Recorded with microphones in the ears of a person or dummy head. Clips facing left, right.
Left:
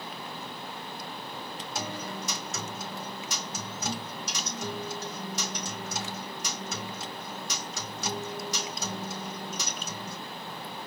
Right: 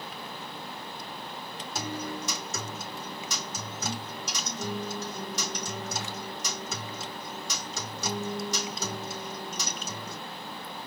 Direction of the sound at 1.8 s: 85° right.